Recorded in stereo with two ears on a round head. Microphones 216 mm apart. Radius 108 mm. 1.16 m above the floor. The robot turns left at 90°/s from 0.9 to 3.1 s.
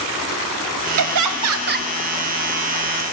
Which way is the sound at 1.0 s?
70° right.